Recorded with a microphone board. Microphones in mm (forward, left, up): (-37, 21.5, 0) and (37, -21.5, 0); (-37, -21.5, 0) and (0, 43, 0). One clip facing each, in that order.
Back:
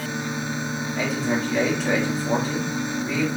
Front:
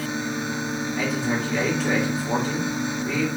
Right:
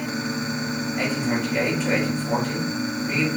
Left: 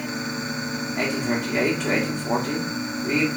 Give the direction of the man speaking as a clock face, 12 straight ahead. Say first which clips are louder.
Back 2 dB, even; 10 o'clock.